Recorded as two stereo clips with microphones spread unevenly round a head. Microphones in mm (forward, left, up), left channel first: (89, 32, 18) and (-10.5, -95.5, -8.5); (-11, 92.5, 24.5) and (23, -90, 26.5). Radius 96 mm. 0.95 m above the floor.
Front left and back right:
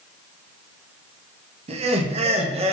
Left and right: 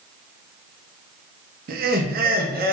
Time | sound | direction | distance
1.7 | laughter | 100° right | 0.5 m